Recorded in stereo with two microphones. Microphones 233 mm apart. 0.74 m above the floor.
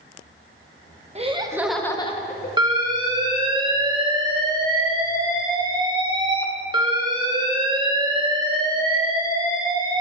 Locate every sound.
1.1 s laughter: 30° right (ahead or behind), 0.8 m; by 2.5 s 45° left (ahead or behind), 0.7 m
2.6 s an alarm: 20° right (ahead or behind), 0.9 m